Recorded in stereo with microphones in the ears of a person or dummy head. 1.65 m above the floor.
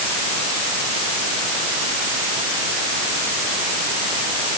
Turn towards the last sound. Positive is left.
No sound to turn to.